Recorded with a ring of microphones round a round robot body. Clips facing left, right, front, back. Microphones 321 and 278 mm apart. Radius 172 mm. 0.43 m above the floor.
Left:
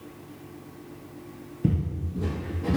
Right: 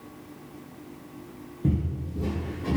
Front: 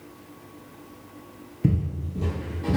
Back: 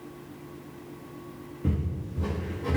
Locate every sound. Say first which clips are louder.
1.6 s footsteps: even, front 5 dB; 25° left, 0.7 m; by 2.8 s 20° left, 1.4 m